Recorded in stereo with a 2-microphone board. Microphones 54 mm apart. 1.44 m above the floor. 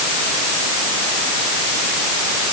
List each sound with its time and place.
Only background noise.